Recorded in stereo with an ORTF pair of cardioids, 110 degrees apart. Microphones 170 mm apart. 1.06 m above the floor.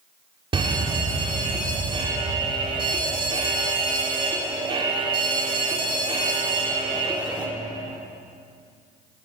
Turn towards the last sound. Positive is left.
turn(degrees=-30)